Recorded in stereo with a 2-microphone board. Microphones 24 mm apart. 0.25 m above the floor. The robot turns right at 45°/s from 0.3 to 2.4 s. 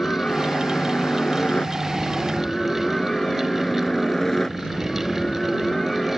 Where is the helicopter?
55° left (ahead or behind); by 6.2 s 15° left (ahead or behind).